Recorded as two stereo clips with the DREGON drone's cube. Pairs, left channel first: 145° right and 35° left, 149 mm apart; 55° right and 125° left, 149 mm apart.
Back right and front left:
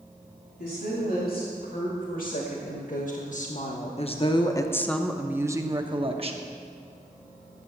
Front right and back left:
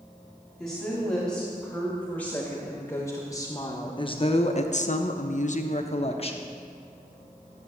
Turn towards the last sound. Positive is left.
turn(degrees=-10)